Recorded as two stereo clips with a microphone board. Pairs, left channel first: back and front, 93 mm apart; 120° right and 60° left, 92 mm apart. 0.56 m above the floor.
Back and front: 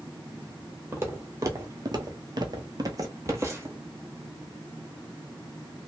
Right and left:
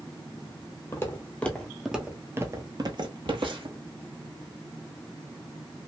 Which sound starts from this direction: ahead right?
Footsteps, at 0.9 s.